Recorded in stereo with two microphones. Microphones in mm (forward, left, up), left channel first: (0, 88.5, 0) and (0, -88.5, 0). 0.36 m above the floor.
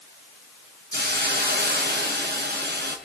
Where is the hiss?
75° right (ahead or behind), 5 m.